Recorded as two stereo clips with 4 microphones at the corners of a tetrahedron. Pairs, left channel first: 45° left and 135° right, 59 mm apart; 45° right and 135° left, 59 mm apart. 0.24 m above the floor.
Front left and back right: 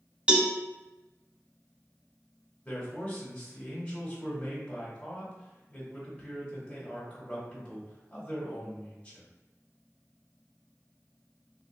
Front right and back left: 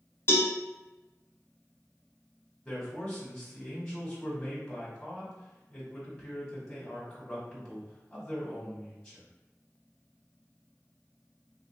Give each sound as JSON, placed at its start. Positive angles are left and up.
{"t": 0.3, "sound": "a cowbell", "azimuth_deg": -65, "distance_m": 0.8}
{"t": 2.6, "sound": "a man speaking", "azimuth_deg": 20, "distance_m": 1.6}